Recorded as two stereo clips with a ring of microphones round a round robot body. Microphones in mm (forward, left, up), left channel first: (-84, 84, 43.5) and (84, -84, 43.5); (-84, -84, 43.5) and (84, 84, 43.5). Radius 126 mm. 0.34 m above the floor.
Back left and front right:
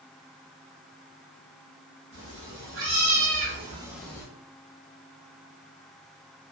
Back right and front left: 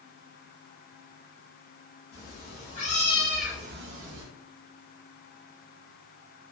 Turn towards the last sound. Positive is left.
turn(degrees=60)